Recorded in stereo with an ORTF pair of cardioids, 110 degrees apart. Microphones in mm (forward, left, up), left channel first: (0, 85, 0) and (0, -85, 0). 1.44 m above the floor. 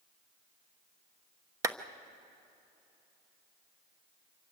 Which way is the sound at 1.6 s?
20° right.